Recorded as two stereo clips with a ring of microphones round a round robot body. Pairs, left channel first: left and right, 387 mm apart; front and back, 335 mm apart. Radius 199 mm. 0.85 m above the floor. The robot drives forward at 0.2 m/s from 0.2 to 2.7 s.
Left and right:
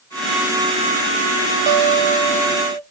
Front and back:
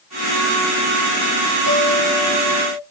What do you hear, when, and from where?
1.7 s a guitar: 75° right, 6.5 m; by 2.8 s 80° right, 6.5 m